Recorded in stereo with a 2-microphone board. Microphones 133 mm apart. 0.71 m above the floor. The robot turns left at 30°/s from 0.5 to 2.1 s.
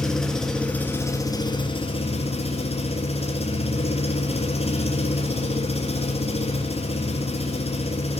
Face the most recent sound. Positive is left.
turn(degrees=125)